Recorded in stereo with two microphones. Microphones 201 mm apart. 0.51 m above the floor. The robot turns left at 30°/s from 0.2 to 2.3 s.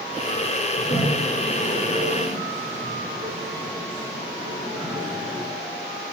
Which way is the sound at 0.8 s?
45° left (ahead or behind).